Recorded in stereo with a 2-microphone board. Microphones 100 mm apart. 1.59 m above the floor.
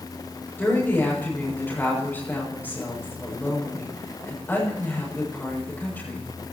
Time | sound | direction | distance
0.6 | a woman speaking | 20° left (ahead or behind) | 7 m